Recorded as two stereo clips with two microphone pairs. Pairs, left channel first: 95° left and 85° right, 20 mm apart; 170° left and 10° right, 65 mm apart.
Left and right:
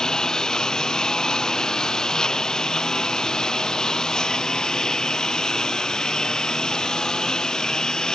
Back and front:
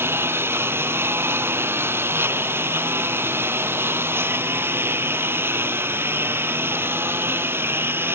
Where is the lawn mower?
40° left.